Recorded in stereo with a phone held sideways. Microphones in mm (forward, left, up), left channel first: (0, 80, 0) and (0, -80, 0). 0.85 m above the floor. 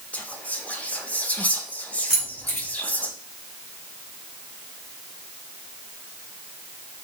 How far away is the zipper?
I don't hear a zipper.